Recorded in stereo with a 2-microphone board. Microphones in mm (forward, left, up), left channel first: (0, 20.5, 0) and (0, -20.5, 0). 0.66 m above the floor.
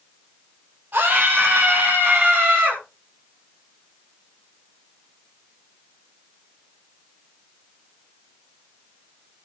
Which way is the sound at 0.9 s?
45° right (ahead or behind).